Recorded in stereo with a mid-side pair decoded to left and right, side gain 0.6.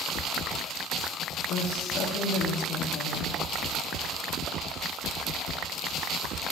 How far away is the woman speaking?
About 3 m.